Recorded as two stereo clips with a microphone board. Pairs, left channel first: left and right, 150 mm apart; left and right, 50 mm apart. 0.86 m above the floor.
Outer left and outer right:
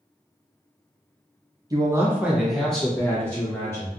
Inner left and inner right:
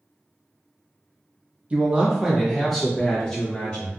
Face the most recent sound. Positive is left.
turn(degrees=15)  # may be behind; listen again after turning